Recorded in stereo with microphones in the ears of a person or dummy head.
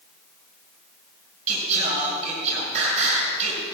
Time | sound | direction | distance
1.5 | singing | 35° right (ahead or behind) | 6 m